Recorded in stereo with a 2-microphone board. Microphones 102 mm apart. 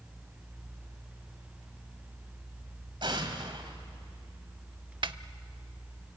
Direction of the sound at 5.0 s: 55° right (ahead or behind).